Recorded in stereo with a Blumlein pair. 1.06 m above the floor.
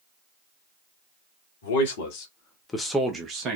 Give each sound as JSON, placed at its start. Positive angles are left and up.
{"t": 1.6, "sound": "a man speaking", "azimuth_deg": 60, "distance_m": 1.2}